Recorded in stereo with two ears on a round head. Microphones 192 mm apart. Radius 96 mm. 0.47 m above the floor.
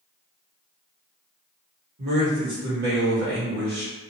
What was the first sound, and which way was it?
A man speaking, 50° right (ahead or behind).